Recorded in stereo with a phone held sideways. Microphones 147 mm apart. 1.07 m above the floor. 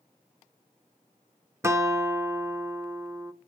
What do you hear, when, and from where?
1.6 s a guitar: 15° right (ahead or behind), 0.9 m